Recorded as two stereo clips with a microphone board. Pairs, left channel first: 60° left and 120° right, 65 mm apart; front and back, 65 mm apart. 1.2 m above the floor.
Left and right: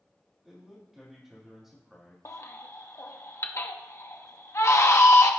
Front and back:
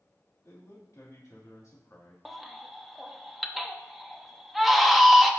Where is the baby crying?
90° left, 0.8 m.